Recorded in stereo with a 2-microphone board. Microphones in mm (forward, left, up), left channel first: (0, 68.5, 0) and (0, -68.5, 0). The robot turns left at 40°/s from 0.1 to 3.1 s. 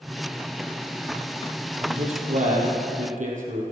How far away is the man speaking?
About 4 m.